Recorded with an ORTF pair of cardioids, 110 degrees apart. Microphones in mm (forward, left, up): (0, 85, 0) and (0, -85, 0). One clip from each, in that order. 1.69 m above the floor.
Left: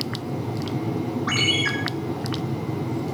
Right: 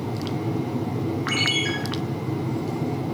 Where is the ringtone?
5° left, 7 m.